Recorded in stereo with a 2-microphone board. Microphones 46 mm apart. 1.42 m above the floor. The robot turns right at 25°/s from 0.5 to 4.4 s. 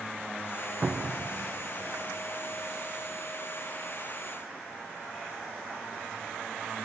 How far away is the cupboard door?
About 0.7 m.